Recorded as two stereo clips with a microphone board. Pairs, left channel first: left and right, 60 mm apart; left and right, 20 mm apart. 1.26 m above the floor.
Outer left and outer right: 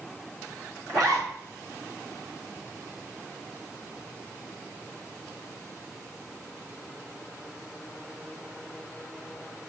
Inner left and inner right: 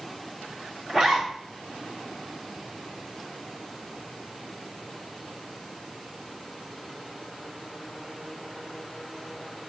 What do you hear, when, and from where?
0.9 s a zipper: 75° right (ahead or behind), 3 m